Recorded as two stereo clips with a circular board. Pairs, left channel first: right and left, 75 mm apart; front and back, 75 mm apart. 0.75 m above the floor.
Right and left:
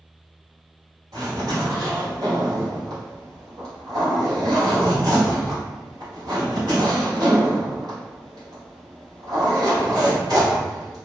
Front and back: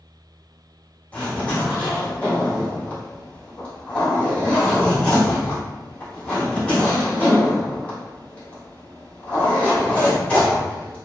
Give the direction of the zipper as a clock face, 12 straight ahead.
10 o'clock.